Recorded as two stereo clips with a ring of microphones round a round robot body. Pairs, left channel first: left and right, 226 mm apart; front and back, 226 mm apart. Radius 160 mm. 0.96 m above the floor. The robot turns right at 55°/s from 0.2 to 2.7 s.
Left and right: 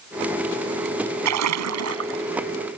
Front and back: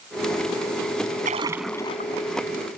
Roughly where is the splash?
Right.